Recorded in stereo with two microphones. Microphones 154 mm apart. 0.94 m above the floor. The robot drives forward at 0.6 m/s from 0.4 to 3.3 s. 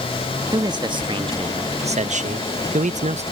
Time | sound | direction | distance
0.5 | a man speaking | 25° right (ahead or behind) | ?